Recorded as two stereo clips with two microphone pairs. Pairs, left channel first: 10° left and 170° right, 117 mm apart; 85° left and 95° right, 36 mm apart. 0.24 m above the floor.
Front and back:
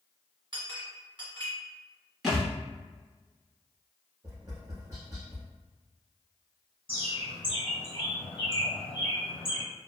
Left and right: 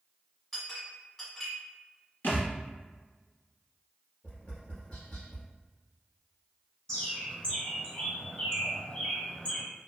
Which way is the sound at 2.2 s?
100° left.